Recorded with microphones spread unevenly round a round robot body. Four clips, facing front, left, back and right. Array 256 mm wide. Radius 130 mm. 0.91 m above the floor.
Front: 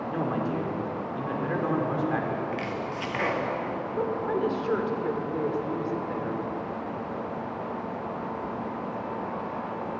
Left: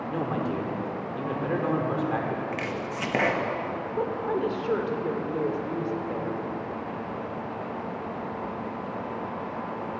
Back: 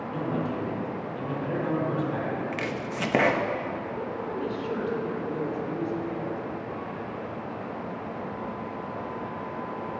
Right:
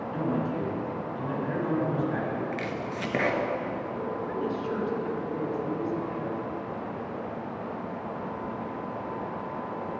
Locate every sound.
0.1 s a man speaking: 65° left, 3.5 m
2.5 s chopping: 170° left, 1.2 m
4.0 s a woman speaking: 55° left, 2.5 m